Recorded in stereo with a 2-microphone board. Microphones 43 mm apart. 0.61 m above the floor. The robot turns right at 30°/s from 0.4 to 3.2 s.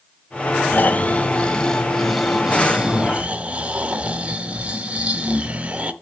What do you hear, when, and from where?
0.7 s snoring: 135° left, 0.6 m; by 5.9 s 150° right, 0.6 m